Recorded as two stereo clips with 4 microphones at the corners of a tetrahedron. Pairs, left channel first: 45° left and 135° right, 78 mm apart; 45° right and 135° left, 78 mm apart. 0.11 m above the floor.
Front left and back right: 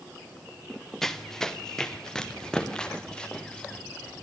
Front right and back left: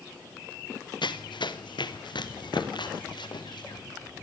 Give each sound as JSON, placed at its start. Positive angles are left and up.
{"t": 1.0, "sound": "running footsteps", "azimuth_deg": -40, "distance_m": 2.5}